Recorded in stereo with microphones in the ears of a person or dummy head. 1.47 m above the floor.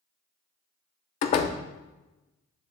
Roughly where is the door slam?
Left.